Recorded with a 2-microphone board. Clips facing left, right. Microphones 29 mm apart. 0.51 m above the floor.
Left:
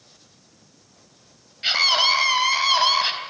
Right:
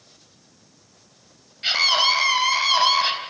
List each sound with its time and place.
1.6 s a scream: 5° left (ahead or behind), 3.5 m; by 3.1 s centre (ahead or behind), 4.5 m